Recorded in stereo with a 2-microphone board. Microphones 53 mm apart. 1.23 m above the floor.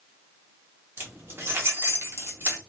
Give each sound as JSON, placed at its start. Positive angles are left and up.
{"t": 1.0, "sound": "keys jangling", "side_deg": -50, "distance_m": 1.1}